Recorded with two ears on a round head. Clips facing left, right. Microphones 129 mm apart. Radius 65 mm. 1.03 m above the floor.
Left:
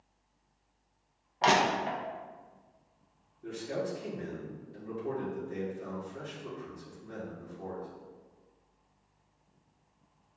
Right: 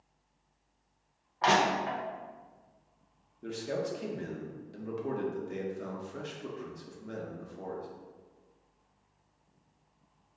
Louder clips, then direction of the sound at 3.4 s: Right 1 dB; 75° right (ahead or behind).